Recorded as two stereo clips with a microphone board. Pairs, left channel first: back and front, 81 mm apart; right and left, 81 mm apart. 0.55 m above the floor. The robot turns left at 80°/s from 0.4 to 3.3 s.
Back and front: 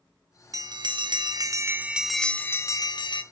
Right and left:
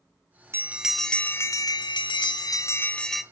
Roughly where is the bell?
Ahead left.